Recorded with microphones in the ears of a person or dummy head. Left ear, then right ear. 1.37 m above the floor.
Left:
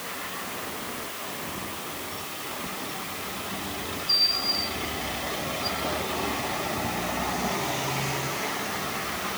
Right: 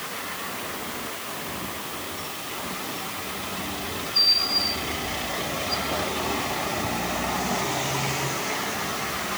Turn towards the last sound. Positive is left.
No sound to turn to.